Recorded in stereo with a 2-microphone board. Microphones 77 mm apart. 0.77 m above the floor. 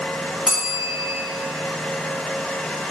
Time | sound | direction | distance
0.5 | a bell | 5° right (ahead or behind) | 1.0 m